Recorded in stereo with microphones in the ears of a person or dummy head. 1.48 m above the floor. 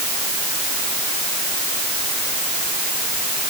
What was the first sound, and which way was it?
Only background noise.